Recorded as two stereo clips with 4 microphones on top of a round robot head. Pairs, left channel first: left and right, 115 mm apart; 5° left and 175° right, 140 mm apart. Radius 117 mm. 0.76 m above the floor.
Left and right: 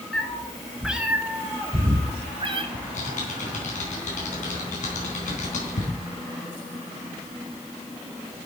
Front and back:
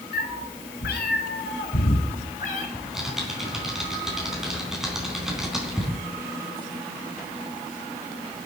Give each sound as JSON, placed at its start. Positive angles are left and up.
{"t": 0.1, "sound": "a cat meowing", "azimuth_deg": 10, "distance_m": 1.7}
{"t": 2.7, "sound": "typing on a keyboard", "azimuth_deg": 95, "distance_m": 4.0}